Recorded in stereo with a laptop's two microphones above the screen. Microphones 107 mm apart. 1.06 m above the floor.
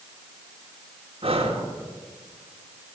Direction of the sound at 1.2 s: 65° right (ahead or behind).